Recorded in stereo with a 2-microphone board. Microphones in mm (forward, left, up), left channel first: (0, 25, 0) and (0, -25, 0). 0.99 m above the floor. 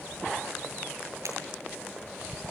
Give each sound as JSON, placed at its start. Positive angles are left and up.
{"t": 1.2, "sound": "breaking glass", "side_deg": -85, "distance_m": 9.0}